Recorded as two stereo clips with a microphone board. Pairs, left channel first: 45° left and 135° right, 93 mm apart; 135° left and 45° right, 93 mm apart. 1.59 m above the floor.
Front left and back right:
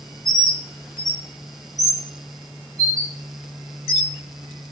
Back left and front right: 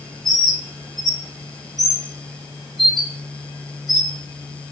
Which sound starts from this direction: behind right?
A bird, at 0.2 s.